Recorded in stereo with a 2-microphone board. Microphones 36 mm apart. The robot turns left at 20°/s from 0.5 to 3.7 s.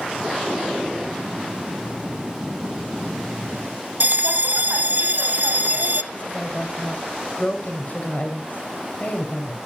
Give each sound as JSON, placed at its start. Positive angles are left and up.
{"t": 4.0, "sound": "a bell", "side_deg": -60, "distance_m": 0.8}
{"t": 6.1, "sound": "a woman speaking", "side_deg": 50, "distance_m": 3.0}